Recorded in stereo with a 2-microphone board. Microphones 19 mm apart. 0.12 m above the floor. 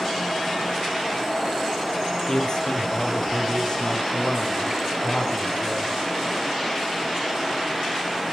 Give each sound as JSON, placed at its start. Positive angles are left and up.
{"t": 2.3, "sound": "a man speaking", "side_deg": 35, "distance_m": 3.5}